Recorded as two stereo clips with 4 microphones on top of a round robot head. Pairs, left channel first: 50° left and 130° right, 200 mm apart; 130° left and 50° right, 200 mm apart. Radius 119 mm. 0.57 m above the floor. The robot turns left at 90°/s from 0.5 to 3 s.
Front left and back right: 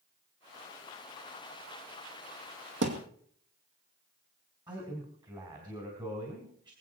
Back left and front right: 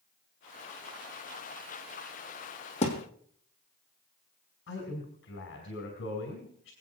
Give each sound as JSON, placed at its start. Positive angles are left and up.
{"t": 2.8, "sound": "a thud", "azimuth_deg": -165, "distance_m": 1.7}
{"t": 4.7, "sound": "a man speaking", "azimuth_deg": 160, "distance_m": 2.5}